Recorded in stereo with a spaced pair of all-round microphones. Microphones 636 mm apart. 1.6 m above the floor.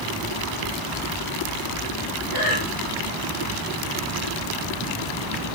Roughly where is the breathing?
Left.